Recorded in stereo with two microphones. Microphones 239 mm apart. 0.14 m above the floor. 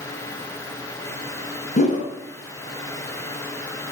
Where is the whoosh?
35° left (ahead or behind), 1.0 m.